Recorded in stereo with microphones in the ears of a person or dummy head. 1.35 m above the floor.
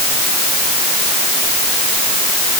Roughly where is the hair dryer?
I don't hear a hair dryer.